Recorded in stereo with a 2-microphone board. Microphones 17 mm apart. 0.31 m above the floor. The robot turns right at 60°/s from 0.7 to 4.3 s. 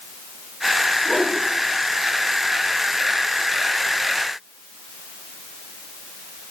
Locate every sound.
1.1 s a whoosh: 55° left (ahead or behind), 8 m; by 1.4 s 40° left (ahead or behind), 8 m